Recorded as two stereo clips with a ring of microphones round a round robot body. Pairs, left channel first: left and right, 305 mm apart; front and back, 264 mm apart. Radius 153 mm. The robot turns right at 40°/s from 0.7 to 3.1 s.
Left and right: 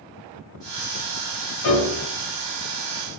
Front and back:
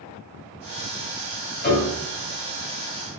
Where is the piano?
50° left, 1.2 m; by 2.0 s 65° left, 1.2 m.